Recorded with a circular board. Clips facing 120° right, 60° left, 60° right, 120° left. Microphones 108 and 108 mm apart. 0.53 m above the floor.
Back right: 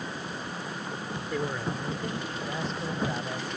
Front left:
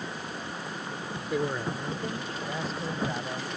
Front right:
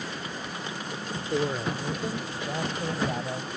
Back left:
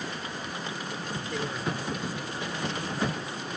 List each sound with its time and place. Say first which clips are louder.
1.3 s a man speaking: front left 2 dB, front right 6 dB; 10° right; by 3.5 s 30° right